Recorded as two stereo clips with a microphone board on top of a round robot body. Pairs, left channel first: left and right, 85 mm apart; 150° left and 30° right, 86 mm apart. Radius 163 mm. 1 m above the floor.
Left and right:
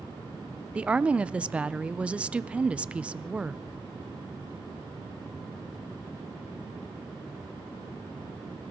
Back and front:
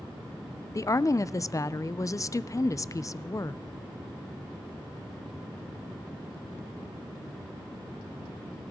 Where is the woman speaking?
165° right, 0.5 m.